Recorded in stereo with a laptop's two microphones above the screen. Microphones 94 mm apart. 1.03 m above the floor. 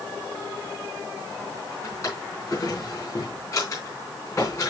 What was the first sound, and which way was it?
A drawer, 35° left (ahead or behind).